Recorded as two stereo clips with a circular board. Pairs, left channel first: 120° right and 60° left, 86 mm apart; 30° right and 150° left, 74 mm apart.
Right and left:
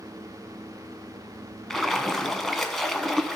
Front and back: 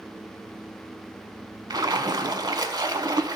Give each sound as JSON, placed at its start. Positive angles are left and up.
{"t": 1.7, "sound": "a splash", "azimuth_deg": 155, "distance_m": 0.7}